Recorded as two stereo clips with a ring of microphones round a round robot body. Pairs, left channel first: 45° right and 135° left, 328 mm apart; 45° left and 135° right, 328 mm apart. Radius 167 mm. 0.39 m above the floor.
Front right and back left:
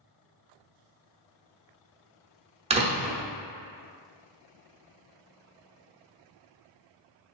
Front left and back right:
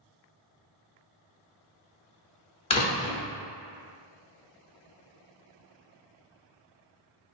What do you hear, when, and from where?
2.7 s a door slam: 90° left, 0.7 m